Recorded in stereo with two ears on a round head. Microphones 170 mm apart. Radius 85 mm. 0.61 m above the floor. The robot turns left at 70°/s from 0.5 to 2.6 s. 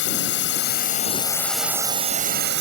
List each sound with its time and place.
0.0 s a drone: 75° left; by 2.6 s 70° right